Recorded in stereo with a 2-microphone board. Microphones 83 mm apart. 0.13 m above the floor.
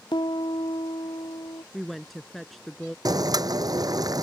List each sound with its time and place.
0.1 s a piano: 65° left (ahead or behind)
1.7 s a woman speaking: centre (ahead or behind)
3.0 s boiling: 50° right (ahead or behind)